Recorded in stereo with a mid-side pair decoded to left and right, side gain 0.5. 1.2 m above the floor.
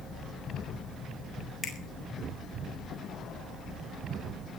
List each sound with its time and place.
1.6 s a finger snap: 35° left, 7.5 m